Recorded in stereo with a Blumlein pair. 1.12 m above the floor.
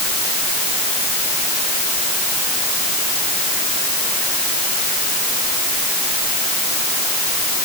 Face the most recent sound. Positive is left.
No sound to turn to.